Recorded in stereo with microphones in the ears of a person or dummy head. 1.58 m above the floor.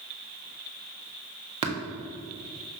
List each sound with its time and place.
1.6 s tapping: 30° right (ahead or behind), 1.2 m